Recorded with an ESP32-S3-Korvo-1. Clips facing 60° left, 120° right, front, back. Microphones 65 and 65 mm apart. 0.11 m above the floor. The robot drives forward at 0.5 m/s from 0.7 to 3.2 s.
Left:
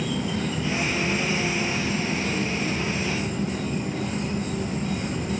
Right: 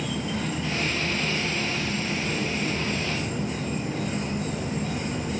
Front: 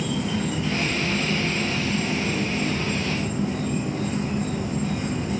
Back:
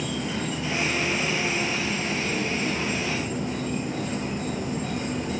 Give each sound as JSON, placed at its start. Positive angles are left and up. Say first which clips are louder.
{"t": 0.0, "sound": "an insect", "louder": "left 2 dB, front 3 dB", "azimuth_deg": 145, "distance_m": 1.8}